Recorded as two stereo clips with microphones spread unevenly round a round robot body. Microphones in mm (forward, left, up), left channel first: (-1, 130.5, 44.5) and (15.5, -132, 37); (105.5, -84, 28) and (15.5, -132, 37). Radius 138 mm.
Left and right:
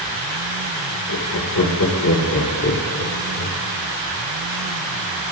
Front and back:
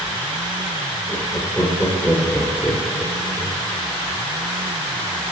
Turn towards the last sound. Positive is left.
turn(degrees=135)